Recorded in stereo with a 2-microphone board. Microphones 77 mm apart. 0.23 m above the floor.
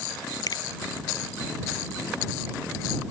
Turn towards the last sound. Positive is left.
turn(degrees=55)  # may be behind; listen again after turning